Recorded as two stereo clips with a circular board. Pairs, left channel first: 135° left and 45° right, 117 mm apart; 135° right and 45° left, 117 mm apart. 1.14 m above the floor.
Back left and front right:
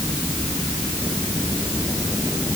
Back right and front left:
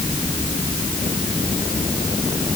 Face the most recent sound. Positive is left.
No sound to turn to.